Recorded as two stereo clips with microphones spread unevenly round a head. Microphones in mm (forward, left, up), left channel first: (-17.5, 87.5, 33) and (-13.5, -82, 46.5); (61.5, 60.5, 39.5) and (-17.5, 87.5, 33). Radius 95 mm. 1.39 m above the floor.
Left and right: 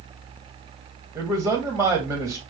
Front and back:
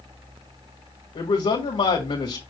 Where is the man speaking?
10° right, 1.9 m.